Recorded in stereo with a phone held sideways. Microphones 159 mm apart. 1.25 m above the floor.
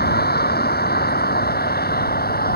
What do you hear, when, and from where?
0.0 s a vehicle: 80° left; by 2.6 s 70° left (ahead or behind)